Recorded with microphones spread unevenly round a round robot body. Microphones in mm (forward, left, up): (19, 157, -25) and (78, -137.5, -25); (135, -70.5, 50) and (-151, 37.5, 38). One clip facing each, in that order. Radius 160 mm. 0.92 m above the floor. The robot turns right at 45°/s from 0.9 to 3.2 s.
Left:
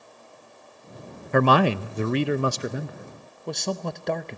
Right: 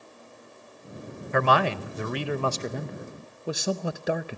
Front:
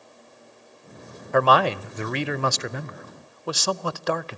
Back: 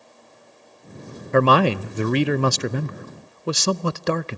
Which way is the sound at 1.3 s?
115° left.